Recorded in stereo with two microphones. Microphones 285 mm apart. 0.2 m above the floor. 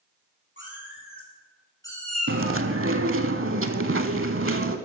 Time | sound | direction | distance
0.6 | a cat meowing | 45° left (ahead or behind) | 3.5 m
2.3 | chewing | 50° right (ahead or behind) | 0.6 m